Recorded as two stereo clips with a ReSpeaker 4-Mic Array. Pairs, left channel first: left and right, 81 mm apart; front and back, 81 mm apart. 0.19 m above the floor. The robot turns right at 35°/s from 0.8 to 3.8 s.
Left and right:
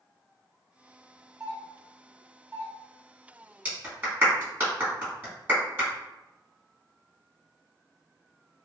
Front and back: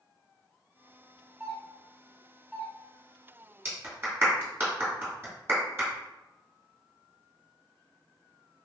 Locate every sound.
1.4 s a doorbell: 145° right, 1.6 m; by 2.7 s 100° right, 1.6 m
3.6 s a clap: 145° right, 1.5 m; by 5.9 s 140° right, 1.5 m